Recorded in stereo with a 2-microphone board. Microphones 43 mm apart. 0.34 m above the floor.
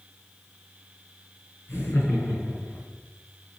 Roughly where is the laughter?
Left.